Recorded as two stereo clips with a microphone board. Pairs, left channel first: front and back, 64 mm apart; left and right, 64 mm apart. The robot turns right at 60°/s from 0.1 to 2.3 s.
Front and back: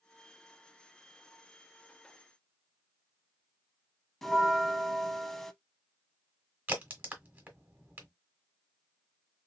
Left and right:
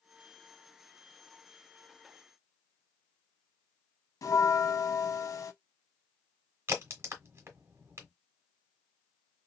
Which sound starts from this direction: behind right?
A crack, at 6.7 s.